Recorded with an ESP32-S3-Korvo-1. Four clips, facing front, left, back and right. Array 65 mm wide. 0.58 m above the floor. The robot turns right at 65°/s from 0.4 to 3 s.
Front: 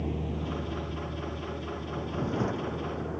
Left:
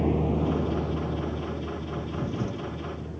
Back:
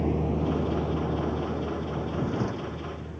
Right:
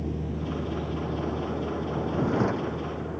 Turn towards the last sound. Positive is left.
turn(degrees=-45)